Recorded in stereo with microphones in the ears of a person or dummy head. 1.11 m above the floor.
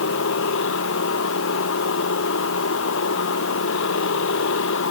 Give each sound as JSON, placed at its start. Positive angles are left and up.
{"t": 0.0, "sound": "a machine running", "side_deg": 65}